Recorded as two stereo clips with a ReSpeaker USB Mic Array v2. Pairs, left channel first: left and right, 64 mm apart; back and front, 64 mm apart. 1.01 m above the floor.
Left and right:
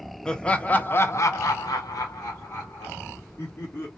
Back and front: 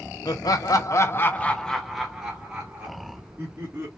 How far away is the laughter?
About 1.0 m.